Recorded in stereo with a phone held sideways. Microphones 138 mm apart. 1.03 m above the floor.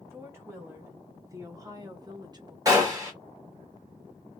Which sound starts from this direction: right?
A gunshot, at 2.6 s.